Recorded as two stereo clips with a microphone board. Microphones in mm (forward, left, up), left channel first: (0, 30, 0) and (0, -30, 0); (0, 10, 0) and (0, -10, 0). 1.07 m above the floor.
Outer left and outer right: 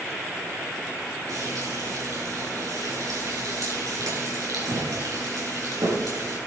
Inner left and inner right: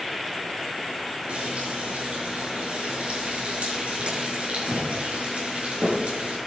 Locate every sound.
1.3 s frying: 75° right (ahead or behind), 6 m